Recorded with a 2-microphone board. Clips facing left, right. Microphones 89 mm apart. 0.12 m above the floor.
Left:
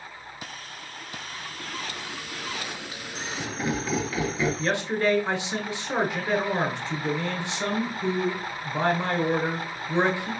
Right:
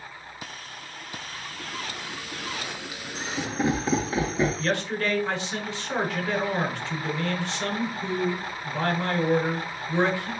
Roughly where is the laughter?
Centre.